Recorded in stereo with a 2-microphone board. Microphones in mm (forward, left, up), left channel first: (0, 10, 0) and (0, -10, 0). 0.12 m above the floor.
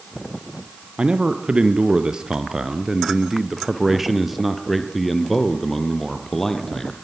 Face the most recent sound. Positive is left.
turn(degrees=15)  # may be behind; listen again after turning